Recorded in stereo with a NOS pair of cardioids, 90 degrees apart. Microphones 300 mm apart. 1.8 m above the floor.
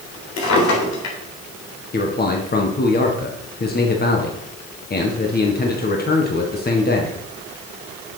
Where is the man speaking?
35° left, 1.9 m.